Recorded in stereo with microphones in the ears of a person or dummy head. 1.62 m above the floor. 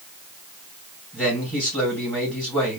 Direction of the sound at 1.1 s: 5° right (ahead or behind).